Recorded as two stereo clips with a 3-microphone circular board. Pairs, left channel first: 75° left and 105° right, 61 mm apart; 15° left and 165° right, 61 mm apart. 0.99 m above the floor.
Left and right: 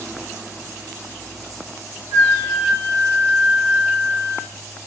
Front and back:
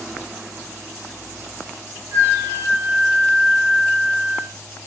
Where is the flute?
125° right, 4.5 m.